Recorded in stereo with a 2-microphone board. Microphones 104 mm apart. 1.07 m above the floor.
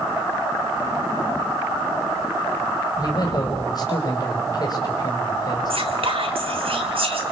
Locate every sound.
3.0 s a man speaking: 40° left (ahead or behind), 5 m
5.7 s whispering: 70° right (ahead or behind), 3.5 m